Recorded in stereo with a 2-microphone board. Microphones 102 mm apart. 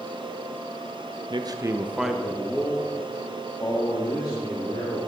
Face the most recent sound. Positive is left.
turn(degrees=60)  # may be behind; listen again after turning